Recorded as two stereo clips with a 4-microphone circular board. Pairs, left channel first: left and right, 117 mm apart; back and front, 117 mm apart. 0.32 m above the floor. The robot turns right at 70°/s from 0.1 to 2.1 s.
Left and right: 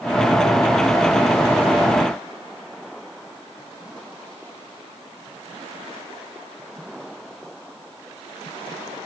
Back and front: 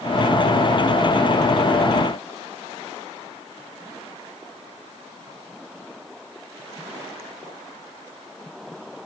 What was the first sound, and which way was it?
Only background noise.